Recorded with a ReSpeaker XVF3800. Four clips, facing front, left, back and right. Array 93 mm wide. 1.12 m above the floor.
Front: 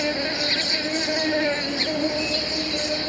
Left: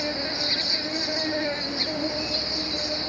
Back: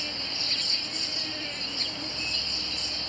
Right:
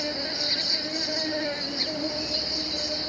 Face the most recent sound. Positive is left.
turn(degrees=0)